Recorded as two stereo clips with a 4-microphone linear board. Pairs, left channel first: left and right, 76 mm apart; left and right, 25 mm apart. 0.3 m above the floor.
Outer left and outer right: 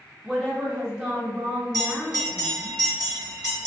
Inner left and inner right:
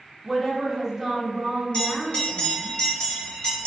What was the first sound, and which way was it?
A woman speaking, 10° right (ahead or behind).